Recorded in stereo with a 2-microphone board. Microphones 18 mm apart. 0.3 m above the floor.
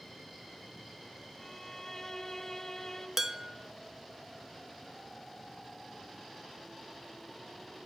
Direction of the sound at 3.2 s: 25° right (ahead or behind).